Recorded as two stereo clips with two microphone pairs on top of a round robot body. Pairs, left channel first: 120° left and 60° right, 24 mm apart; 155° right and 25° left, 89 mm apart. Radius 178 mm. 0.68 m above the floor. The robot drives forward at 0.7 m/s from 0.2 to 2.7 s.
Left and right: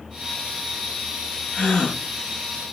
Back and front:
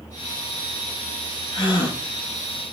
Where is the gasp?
170° left, 2.5 m.